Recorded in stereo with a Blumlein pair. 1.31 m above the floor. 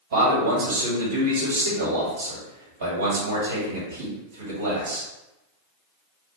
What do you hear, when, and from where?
0.1 s a man speaking: 70° right, 2.0 m